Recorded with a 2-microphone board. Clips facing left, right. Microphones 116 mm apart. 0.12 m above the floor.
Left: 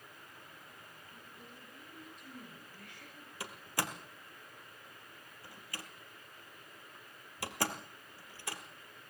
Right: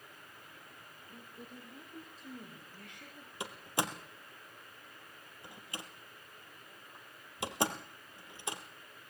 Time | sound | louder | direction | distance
1.1 | a woman speaking | right 7 dB | 50° right (ahead or behind) | 4.5 m
3.4 | a door slam | right 3 dB | 20° right (ahead or behind) | 2 m